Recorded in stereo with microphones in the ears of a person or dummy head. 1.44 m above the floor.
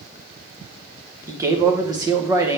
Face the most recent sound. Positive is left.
turn(degrees=-20)  # may be behind; listen again after turning